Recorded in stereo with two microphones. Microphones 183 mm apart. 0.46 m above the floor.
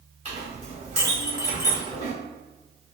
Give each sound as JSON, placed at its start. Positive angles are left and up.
{"t": 0.2, "sound": "a clink", "side_deg": -40, "distance_m": 1.5}